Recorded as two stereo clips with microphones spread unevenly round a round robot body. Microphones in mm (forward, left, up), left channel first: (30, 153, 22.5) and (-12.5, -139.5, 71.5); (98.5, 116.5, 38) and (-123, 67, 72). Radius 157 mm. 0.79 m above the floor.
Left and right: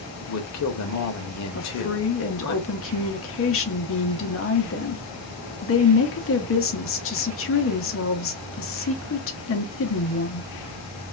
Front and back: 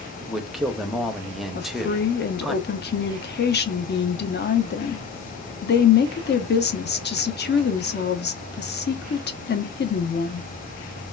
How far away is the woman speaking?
About 0.7 m.